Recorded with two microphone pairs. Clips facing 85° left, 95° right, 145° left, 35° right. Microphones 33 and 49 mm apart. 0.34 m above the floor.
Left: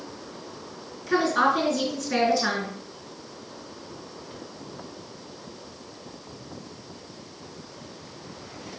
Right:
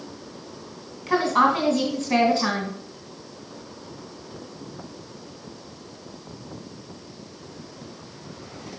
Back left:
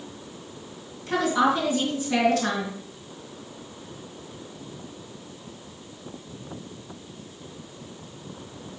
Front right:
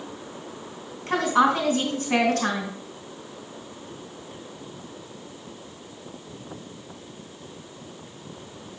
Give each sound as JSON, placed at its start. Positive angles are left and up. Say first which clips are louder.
{"t": 1.1, "sound": "a woman speaking", "louder": "right 2 dB, front right 2 dB", "azimuth_deg": -65, "distance_m": 3.0}